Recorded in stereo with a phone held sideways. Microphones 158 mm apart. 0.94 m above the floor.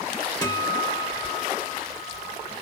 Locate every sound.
0.4 s a guitar: 25° left (ahead or behind), 1.2 m